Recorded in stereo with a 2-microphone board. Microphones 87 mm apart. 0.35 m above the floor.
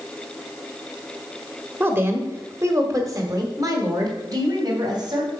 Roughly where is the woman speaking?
Right.